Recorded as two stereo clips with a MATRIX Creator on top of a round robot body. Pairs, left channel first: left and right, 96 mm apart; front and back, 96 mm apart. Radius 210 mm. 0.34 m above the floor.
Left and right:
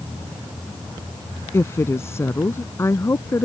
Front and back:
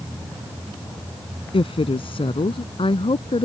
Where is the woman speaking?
25° left.